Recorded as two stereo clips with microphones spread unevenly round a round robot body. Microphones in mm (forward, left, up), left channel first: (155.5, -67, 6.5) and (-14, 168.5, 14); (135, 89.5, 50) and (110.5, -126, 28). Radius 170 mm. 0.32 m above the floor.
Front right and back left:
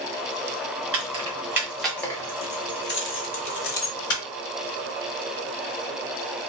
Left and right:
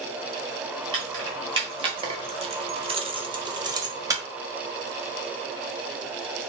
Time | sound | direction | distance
0.9 | keys jangling | 165° right | 1.2 m